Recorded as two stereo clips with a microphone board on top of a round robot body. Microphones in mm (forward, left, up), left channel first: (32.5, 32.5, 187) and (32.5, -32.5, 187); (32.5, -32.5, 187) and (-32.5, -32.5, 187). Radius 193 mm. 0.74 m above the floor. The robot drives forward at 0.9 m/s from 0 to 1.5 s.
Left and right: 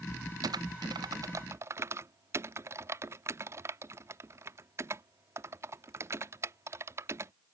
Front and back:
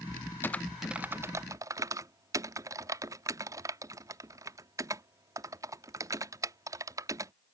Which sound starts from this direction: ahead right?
Typing on a keyboard, at 0.4 s.